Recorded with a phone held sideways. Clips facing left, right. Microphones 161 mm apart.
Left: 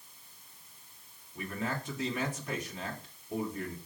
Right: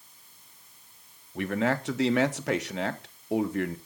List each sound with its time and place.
1.4 s a man speaking: 75° right (ahead or behind), 1.2 m